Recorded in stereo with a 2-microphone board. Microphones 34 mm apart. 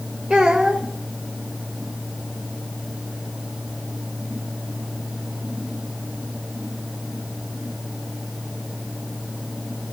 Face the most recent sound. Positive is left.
turn(degrees=-10)  # may be behind; listen again after turning